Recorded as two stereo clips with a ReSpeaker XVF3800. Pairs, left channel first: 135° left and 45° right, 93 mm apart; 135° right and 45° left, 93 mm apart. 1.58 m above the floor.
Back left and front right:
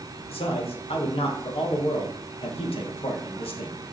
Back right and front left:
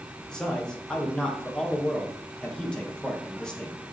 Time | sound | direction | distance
0.3 | a man speaking | 145° left | 2.0 m